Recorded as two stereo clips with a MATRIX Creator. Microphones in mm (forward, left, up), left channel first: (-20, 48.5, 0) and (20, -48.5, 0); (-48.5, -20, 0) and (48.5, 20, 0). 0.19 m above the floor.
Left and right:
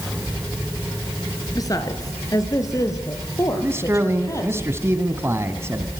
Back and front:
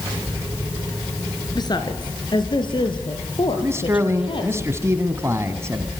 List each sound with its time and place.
1.6 s a woman speaking: 160° left, 2.5 m; by 4.6 s 170° left, 5.5 m
3.6 s a man speaking: 20° right, 1.8 m